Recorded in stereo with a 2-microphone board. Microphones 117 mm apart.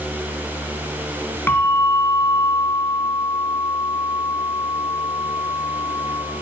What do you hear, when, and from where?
1.5 s a bell: 20° left (ahead or behind), 2 m